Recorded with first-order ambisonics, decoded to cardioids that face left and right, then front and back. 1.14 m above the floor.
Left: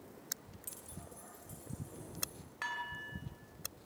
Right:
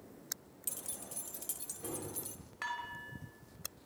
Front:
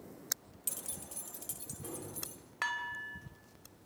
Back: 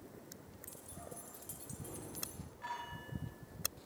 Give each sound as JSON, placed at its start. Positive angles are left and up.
{"t": 0.7, "sound": "keys jangling", "azimuth_deg": -30, "distance_m": 0.9}
{"t": 2.6, "sound": "dishes clattering", "azimuth_deg": 0, "distance_m": 3.5}